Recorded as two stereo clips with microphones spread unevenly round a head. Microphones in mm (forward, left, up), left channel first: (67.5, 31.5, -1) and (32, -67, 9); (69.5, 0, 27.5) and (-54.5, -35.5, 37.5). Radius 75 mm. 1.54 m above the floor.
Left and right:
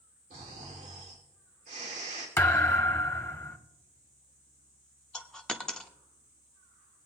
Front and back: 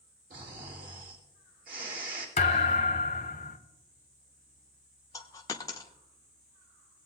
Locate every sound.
0.3 s snoring: 145° right, 3 m
2.4 s a thud: 15° left, 1.4 m
5.1 s a dropped coin: 15° right, 0.9 m